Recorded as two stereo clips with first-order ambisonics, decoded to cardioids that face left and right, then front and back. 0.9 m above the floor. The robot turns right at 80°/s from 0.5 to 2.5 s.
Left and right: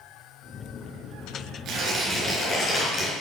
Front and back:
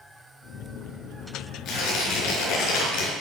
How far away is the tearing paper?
About 4.5 m.